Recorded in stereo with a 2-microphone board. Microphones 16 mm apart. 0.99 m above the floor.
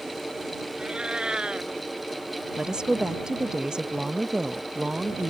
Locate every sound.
0.8 s a cat meowing: 75° right (ahead or behind)
2.6 s a woman speaking: 60° right (ahead or behind)